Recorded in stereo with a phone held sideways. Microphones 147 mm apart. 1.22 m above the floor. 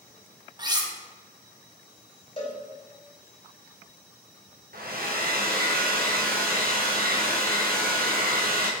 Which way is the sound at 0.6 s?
30° right (ahead or behind).